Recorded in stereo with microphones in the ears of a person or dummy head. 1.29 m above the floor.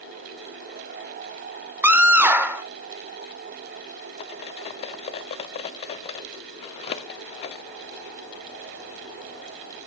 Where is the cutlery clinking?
40° left (ahead or behind), 0.9 m.